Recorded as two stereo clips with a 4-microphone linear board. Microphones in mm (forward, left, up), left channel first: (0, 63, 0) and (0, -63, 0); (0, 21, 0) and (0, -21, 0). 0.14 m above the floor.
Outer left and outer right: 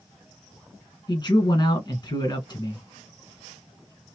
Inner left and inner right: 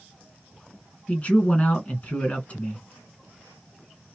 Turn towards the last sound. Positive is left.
turn(degrees=35)  # may be behind; listen again after turning